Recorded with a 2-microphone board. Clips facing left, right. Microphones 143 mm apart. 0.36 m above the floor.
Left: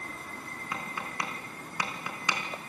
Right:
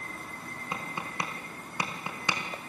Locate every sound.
0.7 s tapping: 25° right (ahead or behind), 5 m